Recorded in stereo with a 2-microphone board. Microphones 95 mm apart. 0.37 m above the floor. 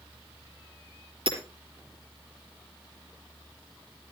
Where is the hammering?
60° right (ahead or behind), 3.5 m.